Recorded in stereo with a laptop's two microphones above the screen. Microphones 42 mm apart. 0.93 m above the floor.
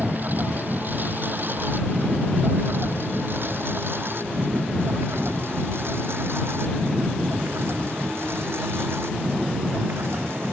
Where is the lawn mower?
45° right (ahead or behind); by 10.5 s 70° right (ahead or behind).